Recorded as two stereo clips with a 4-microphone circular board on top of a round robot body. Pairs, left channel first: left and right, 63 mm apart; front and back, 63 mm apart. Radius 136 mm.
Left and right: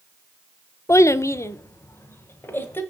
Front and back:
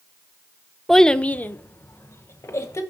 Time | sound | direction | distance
0.9 | a child speaking | 85° left | 0.6 m